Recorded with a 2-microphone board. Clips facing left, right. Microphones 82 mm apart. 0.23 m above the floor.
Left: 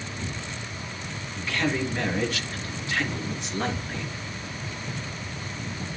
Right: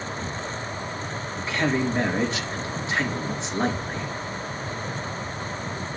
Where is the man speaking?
20° right (ahead or behind), 3.5 m.